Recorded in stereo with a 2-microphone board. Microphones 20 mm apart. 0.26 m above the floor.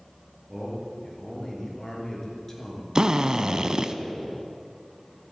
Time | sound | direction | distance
0.5 | a man speaking | 15° left (ahead or behind) | 5 m
3.0 | a drill | 40° right (ahead or behind) | 0.7 m